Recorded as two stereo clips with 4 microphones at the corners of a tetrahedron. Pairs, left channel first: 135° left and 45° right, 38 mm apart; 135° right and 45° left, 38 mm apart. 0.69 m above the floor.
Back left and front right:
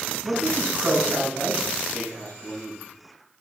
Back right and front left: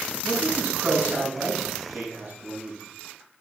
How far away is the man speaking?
About 6 m.